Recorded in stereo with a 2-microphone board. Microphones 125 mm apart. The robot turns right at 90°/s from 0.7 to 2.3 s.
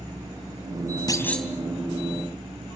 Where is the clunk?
150° left, 3 m; by 1.5 s 175° right, 3 m.